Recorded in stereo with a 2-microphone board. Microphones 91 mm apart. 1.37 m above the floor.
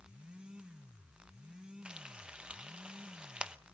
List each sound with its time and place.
1.9 s frying: 10° right (ahead or behind), 0.8 m